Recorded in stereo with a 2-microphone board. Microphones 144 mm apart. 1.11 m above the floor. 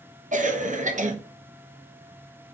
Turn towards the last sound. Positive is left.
turn(degrees=-60)  # may be behind; listen again after turning